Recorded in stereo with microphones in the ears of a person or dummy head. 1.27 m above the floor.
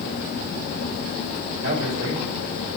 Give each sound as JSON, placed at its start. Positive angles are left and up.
{"t": 1.6, "sound": "a man speaking", "side_deg": -60, "distance_m": 3.0}